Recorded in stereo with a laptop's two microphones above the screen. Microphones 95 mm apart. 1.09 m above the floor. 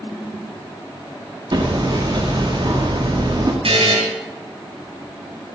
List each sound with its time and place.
1.5 s hammering: 55° right (ahead or behind), 1.9 m
3.6 s a buzzer: 80° right, 3.5 m